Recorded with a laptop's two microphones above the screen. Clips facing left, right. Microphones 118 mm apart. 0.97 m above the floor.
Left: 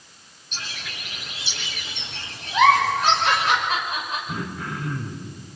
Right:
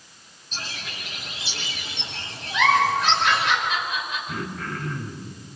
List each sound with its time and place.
0.5 s a bird: 35° right (ahead or behind), 5.5 m
2.5 s a giggle: 40° left (ahead or behind), 3 m
4.3 s throat clearing: 10° left (ahead or behind), 3.5 m